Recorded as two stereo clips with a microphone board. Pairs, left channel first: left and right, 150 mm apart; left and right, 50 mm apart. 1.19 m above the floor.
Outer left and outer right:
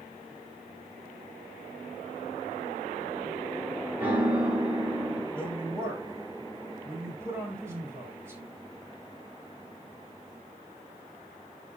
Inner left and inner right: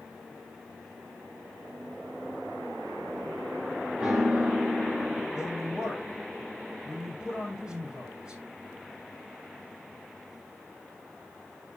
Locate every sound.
4.0 s a piano: 15° right (ahead or behind), 2.5 m
5.3 s a woman speaking: 15° right (ahead or behind), 4 m